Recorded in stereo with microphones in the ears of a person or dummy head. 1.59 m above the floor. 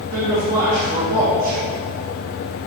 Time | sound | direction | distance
0.1 | a man speaking | 70° right (ahead or behind) | 2.5 m